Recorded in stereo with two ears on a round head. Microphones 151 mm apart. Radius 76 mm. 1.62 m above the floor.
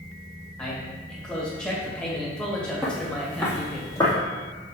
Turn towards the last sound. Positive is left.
turn(degrees=20)  # may be behind; listen again after turning